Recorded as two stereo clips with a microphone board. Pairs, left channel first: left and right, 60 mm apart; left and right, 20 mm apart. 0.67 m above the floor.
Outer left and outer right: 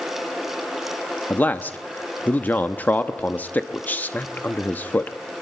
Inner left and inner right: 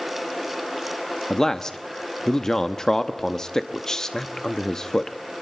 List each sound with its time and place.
1.3 s a man speaking: 30° left (ahead or behind), 0.7 m